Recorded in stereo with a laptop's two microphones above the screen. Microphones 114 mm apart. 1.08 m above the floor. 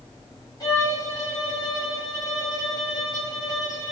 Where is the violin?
35° left (ahead or behind), 5 m.